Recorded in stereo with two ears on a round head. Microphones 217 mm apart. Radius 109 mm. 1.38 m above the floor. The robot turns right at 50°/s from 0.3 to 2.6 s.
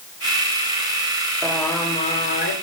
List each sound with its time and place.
1.4 s singing: 5° right, 3 m; by 2.5 s 50° left, 3 m